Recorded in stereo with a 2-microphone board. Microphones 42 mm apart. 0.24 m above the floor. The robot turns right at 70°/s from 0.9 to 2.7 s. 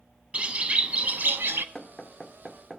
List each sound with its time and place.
0.3 s a bird: 145° right, 0.5 m; by 1.6 s 90° right, 0.5 m
1.8 s knocking: 15° left (ahead or behind), 0.6 m; by 2.8 s 5° right (ahead or behind), 0.6 m